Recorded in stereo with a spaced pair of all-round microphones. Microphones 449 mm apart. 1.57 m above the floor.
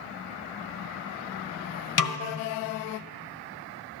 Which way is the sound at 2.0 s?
45° left (ahead or behind).